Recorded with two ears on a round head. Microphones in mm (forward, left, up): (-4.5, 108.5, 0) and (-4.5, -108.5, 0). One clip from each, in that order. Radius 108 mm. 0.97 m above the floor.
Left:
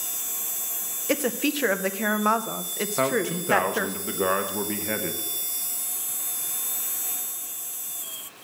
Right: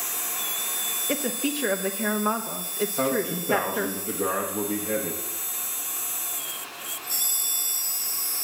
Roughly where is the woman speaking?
Left.